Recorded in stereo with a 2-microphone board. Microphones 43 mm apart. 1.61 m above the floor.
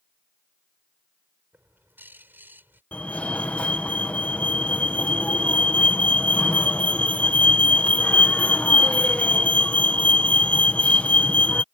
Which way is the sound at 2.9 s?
35° left (ahead or behind).